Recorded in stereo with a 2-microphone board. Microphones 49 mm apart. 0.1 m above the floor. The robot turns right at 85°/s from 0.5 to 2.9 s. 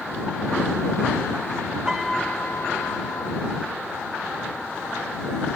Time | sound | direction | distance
1.9 | a piano | 10° right | ?